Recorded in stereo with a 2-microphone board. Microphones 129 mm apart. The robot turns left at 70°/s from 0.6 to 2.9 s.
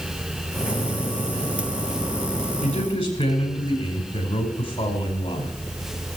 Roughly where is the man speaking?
Left.